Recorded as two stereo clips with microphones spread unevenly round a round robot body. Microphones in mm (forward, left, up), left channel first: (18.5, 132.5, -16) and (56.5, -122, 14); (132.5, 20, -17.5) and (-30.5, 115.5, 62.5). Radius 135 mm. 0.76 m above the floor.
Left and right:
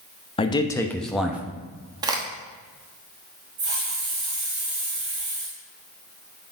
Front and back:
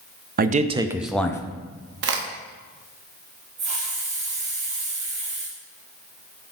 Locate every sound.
0.4 s a man speaking: 115° left, 0.6 m; by 1.4 s 5° left, 0.7 m
2.0 s a crack: 160° right, 0.8 m
3.6 s a hiss: 155° right, 2.5 m